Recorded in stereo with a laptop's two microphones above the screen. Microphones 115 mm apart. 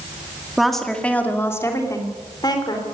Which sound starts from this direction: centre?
A woman speaking, at 0.6 s.